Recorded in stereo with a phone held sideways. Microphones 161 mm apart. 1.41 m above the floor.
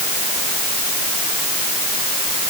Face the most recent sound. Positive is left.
No sound to turn to.